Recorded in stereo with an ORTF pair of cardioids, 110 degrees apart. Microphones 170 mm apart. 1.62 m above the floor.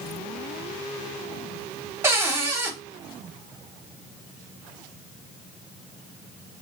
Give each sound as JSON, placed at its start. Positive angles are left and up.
{"t": 2.0, "sound": "a cupboard door", "azimuth_deg": -15, "distance_m": 0.8}